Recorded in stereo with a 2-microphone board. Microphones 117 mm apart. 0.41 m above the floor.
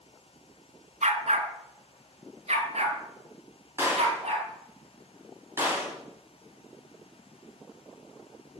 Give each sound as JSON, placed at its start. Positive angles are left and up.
{"t": 1.0, "sound": "a dog barking", "side_deg": -75, "distance_m": 1.1}
{"t": 3.8, "sound": "a gunshot", "side_deg": -20, "distance_m": 3.0}